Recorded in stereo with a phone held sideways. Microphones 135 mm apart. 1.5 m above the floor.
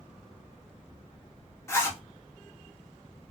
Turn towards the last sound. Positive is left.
turn(degrees=20)  # may be behind; listen again after turning